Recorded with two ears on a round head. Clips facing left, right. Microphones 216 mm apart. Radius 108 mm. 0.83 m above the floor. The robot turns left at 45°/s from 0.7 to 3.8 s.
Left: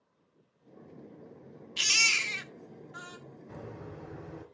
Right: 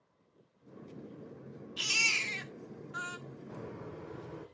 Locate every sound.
1.8 s a baby crying: 45° left, 0.7 m; by 3.2 s 20° right, 0.7 m
3.5 s a bird: 40° left (ahead or behind), 5 m; by 4.4 s 55° left (ahead or behind), 5 m